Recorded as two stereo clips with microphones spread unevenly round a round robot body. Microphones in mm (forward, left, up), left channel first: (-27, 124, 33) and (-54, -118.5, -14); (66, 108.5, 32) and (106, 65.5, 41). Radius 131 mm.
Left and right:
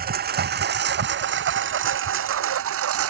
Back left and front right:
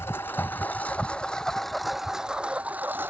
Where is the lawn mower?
150° right; by 3.1 s 125° right.